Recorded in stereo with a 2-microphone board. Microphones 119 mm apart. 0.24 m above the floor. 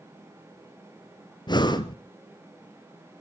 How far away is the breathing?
About 1.0 m.